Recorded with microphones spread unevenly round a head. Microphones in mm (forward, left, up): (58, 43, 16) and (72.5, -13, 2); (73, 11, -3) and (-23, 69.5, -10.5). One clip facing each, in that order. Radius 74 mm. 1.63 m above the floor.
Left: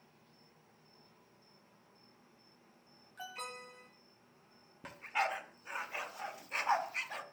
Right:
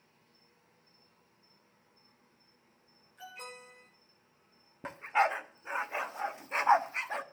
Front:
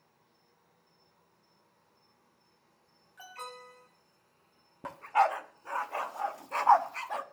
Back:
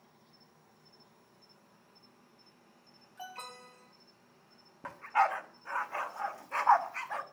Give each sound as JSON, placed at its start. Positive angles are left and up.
{"t": 0.0, "sound": "an insect", "azimuth_deg": 155, "distance_m": 2.5}
{"t": 3.2, "sound": "an alarm", "azimuth_deg": 90, "distance_m": 7.5}
{"t": 4.8, "sound": "a dog barking", "azimuth_deg": -30, "distance_m": 1.1}